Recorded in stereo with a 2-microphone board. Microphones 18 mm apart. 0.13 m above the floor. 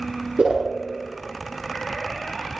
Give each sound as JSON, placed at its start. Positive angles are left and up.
{"t": 0.4, "sound": "a whoosh", "side_deg": -75, "distance_m": 5.0}